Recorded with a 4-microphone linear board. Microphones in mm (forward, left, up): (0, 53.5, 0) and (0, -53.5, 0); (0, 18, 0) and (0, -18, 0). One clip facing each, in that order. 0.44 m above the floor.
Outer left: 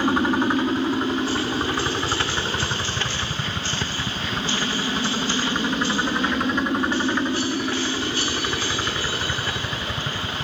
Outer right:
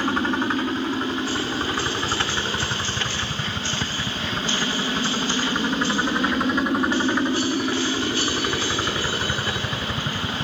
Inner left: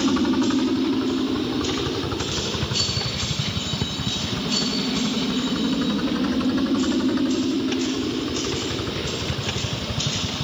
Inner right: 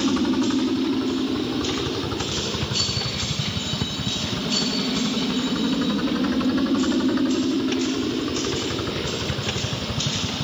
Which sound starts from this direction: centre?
A helicopter, at 0.0 s.